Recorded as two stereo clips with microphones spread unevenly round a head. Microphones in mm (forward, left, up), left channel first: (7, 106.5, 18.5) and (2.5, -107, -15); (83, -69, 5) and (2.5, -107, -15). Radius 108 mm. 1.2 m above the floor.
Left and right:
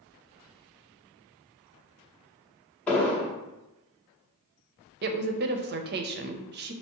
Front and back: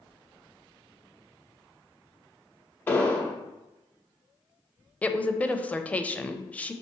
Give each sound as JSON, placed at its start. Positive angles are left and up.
{"t": 2.9, "sound": "an explosion", "azimuth_deg": 25, "distance_m": 0.8}
{"t": 5.0, "sound": "a woman speaking", "azimuth_deg": -55, "distance_m": 0.5}